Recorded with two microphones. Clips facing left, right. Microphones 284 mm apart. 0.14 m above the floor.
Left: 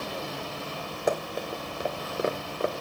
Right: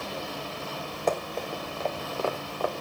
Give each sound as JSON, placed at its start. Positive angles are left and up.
{"t": 1.1, "sound": "running footsteps", "side_deg": 10, "distance_m": 2.5}